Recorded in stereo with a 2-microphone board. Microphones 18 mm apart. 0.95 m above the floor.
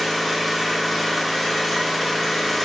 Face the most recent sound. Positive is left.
turn(degrees=10)  # may be behind; listen again after turning